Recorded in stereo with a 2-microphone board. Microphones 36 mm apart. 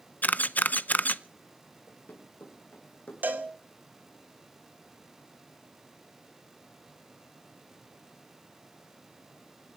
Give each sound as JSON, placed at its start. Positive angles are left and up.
{"t": 0.2, "sound": "a camera shutter", "side_deg": 45, "distance_m": 0.6}
{"t": 1.9, "sound": "running footsteps", "side_deg": 55, "distance_m": 5.5}
{"t": 3.2, "sound": "a cowbell", "side_deg": -55, "distance_m": 2.5}